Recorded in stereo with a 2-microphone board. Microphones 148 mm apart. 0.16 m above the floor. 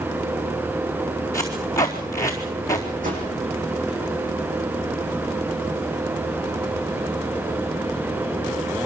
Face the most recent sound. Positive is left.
turn(degrees=-70)  # may be behind; listen again after turning